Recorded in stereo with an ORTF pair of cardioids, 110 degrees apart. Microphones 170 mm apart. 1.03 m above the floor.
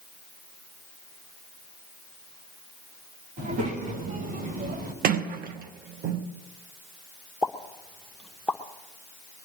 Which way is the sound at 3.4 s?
60° right.